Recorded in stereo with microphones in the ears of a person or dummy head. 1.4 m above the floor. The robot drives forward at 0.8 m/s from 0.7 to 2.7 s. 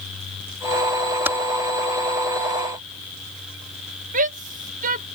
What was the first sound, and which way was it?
Typing on a keyboard, 10° right (ahead or behind).